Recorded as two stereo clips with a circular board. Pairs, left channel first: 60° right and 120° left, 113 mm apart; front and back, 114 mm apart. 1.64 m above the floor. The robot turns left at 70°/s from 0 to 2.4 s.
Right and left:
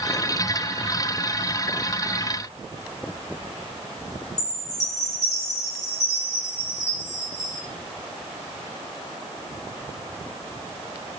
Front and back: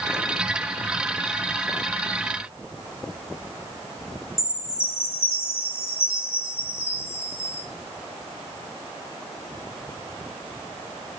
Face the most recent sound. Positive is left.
turn(degrees=-70)